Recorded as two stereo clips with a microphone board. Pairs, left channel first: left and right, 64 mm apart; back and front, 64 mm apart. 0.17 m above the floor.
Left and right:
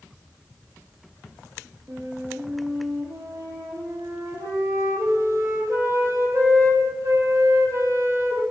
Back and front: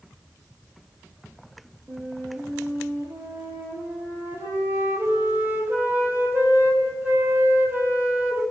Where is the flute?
55° right, 1.3 m.